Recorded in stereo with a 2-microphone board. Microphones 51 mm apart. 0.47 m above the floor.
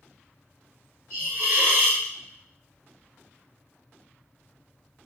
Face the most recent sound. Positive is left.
turn(degrees=-55)  # may be behind; listen again after turning